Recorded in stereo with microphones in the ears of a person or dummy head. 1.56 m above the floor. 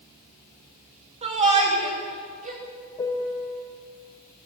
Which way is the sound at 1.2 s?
30° right (ahead or behind).